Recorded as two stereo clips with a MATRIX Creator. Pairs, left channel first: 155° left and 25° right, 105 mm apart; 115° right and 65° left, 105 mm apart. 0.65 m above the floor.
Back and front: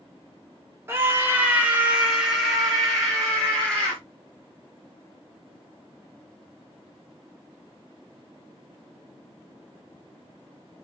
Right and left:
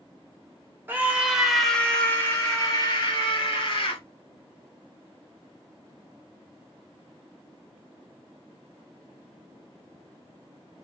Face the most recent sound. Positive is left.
turn(degrees=-120)